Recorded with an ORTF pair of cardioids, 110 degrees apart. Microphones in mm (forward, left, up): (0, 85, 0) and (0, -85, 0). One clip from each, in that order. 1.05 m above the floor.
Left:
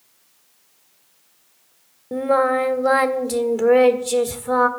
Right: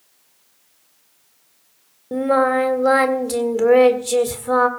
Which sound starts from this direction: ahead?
Singing, at 2.1 s.